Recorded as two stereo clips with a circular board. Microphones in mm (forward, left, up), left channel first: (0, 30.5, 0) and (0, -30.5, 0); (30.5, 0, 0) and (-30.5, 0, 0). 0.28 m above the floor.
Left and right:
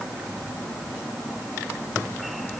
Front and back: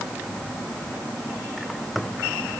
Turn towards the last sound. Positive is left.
No sound to turn to.